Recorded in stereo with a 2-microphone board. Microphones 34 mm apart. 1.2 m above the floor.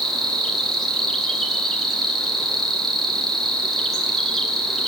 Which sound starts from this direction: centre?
An insect, at 0.0 s.